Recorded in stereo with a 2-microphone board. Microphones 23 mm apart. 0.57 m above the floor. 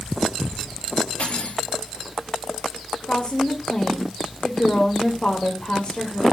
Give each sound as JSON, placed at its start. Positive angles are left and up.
{"t": 1.2, "sound": "cutlery clinking", "side_deg": 65, "distance_m": 8.0}
{"t": 3.0, "sound": "a woman speaking", "side_deg": 50, "distance_m": 2.0}